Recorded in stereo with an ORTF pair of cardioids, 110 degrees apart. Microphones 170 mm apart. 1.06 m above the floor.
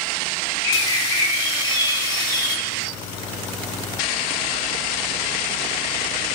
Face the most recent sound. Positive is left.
turn(degrees=25)